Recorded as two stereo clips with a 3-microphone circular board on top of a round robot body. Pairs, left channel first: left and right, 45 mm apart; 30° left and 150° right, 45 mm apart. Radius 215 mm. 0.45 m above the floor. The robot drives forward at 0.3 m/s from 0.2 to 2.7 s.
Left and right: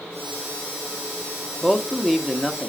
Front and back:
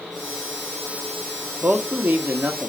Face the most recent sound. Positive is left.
turn(degrees=180)